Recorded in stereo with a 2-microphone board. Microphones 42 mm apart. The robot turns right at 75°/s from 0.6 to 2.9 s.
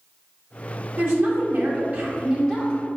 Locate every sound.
1.0 s a woman speaking: 100° right, 1.0 m; by 2.7 s 30° left, 1.0 m